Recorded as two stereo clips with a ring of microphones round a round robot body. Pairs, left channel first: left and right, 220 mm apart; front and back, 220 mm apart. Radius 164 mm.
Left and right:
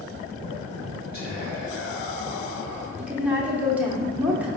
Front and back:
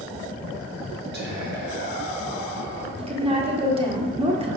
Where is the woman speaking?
165° right, 1.0 m.